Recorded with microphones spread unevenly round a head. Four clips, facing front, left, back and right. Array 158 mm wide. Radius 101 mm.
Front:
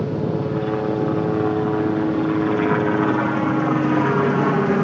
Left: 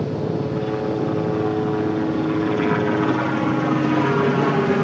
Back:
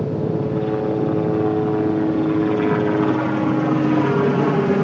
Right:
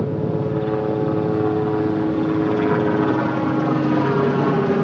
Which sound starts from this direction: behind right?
A helicopter, at 0.0 s.